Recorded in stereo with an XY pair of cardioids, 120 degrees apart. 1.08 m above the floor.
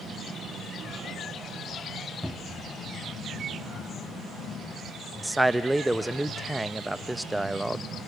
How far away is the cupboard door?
About 1.1 m.